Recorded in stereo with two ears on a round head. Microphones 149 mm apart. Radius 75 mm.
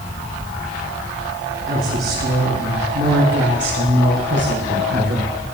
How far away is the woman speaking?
About 8 m.